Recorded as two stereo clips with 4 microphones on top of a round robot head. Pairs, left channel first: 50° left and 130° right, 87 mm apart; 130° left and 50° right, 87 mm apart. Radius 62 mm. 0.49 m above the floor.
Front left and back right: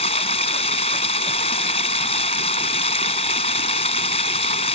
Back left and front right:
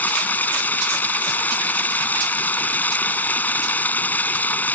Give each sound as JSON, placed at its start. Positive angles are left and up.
{"t": 0.0, "sound": "running water", "azimuth_deg": 55}